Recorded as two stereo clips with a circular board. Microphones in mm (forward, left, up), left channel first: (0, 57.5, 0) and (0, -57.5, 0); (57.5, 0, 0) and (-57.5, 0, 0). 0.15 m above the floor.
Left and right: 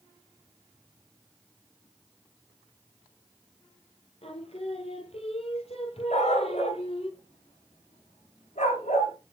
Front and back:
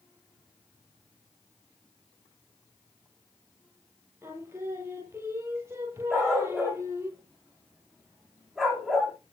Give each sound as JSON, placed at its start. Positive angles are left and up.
{"t": 4.2, "sound": "singing", "azimuth_deg": 115, "distance_m": 3.5}
{"t": 6.1, "sound": "a dog barking", "azimuth_deg": 90, "distance_m": 6.5}